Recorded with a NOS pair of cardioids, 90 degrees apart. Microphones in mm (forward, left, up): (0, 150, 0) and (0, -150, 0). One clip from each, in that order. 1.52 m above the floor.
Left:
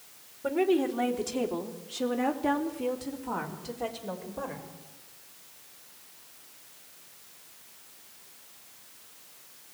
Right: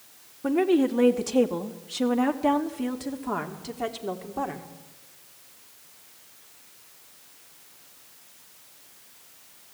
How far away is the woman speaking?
About 2.5 m.